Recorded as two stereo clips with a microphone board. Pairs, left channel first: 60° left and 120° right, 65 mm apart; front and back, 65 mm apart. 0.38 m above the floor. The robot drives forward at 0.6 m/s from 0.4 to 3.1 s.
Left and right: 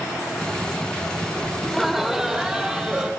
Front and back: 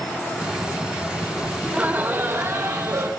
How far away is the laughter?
About 1.0 m.